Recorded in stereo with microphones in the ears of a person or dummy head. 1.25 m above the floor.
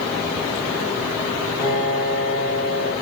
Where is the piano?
15° left (ahead or behind), 1.5 m.